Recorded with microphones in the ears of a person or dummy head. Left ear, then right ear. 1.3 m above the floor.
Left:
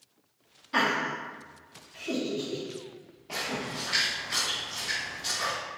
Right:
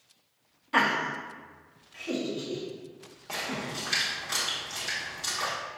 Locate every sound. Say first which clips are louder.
0.7 s laughter: right 1 dB; 15° right (ahead or behind), 0.5 m; by 3.8 s 25° right (ahead or behind), 3 m
3.3 s a splash: left 1 dB; 45° right (ahead or behind), 1.4 m